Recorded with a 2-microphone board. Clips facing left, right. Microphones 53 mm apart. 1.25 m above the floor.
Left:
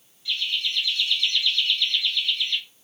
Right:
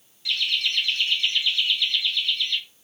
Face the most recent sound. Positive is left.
turn(degrees=5)  # may be behind; listen again after turning